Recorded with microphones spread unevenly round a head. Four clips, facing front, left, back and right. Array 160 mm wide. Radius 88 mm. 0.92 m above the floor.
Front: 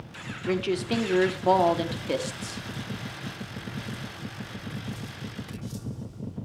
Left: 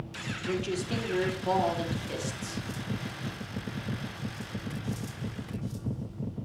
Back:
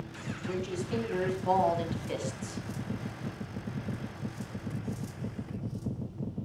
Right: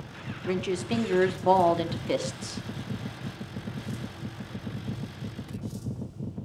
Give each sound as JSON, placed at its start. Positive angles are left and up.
{"t": 0.5, "sound": "a woman speaking", "azimuth_deg": -15, "distance_m": 3.0}